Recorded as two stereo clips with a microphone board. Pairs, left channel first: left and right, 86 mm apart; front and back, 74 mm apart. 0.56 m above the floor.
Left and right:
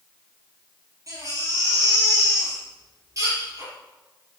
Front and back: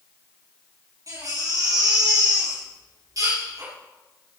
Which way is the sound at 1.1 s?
140° right.